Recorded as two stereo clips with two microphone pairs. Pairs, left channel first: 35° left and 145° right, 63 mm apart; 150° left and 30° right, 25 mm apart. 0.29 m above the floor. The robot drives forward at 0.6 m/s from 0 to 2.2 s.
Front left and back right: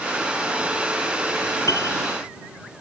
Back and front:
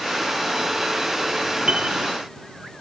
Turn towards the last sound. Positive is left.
turn(degrees=15)